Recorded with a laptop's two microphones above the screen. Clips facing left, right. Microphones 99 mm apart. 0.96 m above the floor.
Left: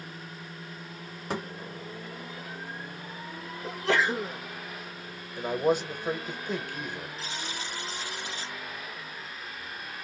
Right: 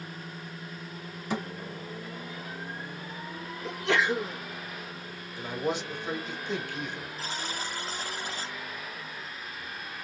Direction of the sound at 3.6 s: 35° left (ahead or behind).